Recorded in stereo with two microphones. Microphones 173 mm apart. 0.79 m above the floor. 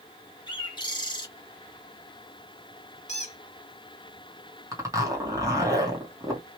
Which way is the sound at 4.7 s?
20° right (ahead or behind).